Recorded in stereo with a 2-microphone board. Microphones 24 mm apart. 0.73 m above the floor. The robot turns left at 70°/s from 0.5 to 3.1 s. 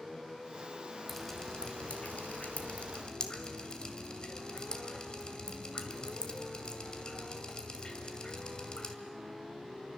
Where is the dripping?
5° left (ahead or behind), 2 m; by 8.9 s 35° left (ahead or behind), 2 m.